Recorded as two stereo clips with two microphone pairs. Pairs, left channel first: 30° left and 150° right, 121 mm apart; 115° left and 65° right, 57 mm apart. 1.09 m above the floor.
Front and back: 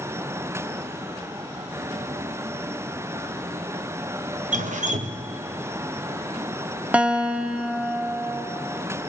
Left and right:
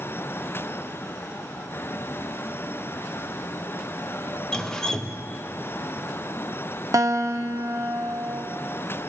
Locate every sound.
4.5 s dripping: 165° right, 1.0 m
6.9 s a guitar: 75° right, 1.1 m